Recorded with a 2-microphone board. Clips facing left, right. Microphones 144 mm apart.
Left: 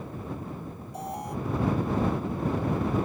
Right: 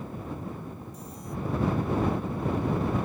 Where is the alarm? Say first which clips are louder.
Left 6 dB; 70° left (ahead or behind).